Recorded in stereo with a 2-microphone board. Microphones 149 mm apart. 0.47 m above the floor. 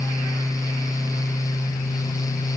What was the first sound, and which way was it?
Only background noise.